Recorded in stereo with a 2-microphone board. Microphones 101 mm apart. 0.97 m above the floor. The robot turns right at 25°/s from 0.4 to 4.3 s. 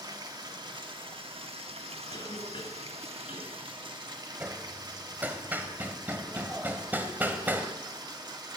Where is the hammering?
20° right (ahead or behind), 1.5 m.